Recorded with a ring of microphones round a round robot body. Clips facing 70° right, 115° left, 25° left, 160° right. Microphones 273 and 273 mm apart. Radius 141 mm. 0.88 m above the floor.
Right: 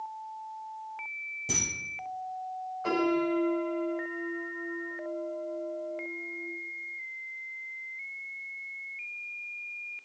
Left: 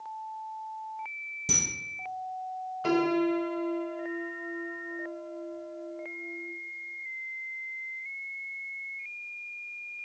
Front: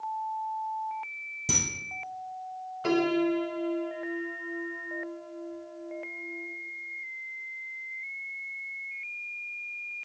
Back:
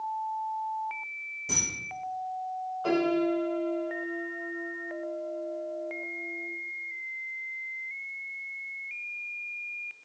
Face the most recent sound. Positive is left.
turn(degrees=75)